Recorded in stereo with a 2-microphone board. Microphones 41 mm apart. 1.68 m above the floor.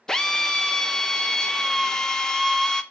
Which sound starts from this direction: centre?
A drill, at 0.1 s.